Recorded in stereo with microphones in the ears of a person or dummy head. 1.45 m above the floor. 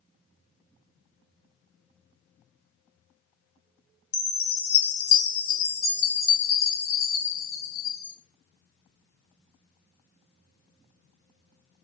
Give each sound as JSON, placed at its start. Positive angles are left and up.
{"t": 4.1, "sound": "a chime", "side_deg": 35, "distance_m": 1.4}